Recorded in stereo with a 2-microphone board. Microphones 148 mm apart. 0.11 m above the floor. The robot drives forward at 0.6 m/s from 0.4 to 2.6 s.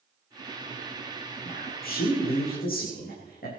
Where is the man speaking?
75° left (ahead or behind), 6.5 m.